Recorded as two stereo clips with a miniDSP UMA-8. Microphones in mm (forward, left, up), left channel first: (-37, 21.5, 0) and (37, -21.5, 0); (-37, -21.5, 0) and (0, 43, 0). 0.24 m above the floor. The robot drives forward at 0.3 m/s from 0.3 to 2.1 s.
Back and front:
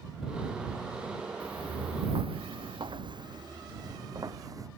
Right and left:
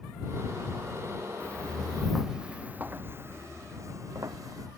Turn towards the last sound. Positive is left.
turn(degrees=20)